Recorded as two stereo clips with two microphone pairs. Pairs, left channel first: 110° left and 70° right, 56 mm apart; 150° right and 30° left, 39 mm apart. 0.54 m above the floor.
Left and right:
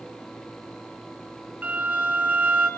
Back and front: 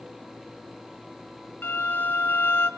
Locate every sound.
1.6 s a violin: 135° right, 1.7 m